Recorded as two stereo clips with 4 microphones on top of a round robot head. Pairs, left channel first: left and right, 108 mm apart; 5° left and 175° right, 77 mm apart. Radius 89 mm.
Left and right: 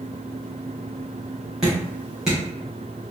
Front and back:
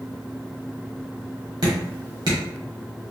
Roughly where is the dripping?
Behind.